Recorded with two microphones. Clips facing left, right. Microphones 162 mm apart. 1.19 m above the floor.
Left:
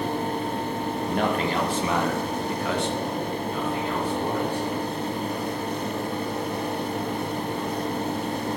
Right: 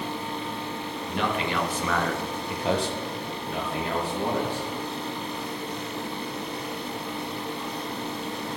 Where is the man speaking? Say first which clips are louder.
Left 2 dB; 45° left (ahead or behind), 1.8 m; by 4.7 s 75° right (ahead or behind), 3 m.